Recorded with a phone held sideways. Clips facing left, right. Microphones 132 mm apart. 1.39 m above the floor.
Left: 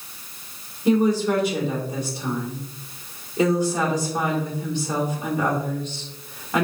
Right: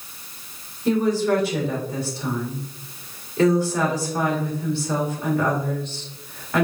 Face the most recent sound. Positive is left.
turn(degrees=15)  # may be behind; listen again after turning